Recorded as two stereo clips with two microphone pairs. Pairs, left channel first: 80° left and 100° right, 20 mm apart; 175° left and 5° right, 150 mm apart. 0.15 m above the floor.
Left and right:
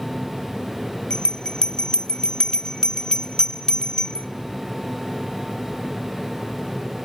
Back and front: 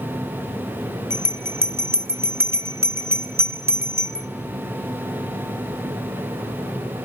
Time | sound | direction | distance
1.1 | a bell | 60° left | 1.1 m